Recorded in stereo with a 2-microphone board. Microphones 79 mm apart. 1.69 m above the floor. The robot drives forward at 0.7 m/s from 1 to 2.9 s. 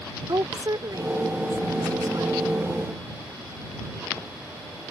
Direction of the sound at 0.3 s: 55° right (ahead or behind).